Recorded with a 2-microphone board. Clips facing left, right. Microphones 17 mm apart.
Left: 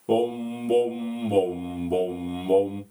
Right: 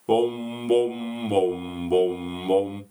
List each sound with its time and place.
0.1 s singing: 30° right (ahead or behind), 0.7 m